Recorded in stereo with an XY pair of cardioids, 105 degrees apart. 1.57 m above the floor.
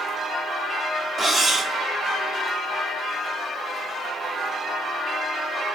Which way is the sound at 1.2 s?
30° right.